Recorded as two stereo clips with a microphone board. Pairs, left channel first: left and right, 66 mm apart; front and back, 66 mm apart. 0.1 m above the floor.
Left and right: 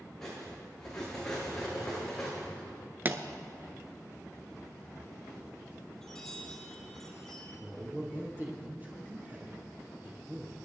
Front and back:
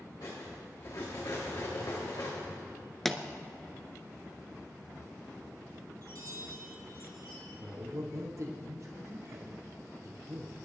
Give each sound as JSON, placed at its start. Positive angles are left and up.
{"t": 0.2, "sound": "cutlery clinking", "azimuth_deg": 10, "distance_m": 6.0}
{"t": 3.0, "sound": "a pop", "azimuth_deg": -85, "distance_m": 0.8}
{"t": 6.0, "sound": "a chime", "azimuth_deg": 170, "distance_m": 3.5}
{"t": 7.6, "sound": "a man speaking", "azimuth_deg": -150, "distance_m": 3.0}